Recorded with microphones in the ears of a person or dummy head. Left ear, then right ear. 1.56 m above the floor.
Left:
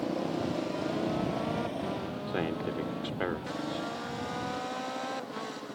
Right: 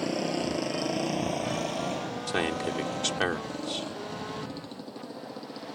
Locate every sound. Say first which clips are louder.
0.0 s a motorcycle: right 3 dB; 65° right (ahead or behind); by 5.8 s 25° right (ahead or behind)
2.3 s a man speaking: right 5 dB; 90° right